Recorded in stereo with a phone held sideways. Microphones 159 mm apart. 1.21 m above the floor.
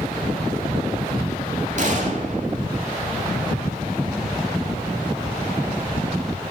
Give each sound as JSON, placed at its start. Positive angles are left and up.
{"t": 1.8, "sound": "a gunshot", "side_deg": -50, "distance_m": 2.0}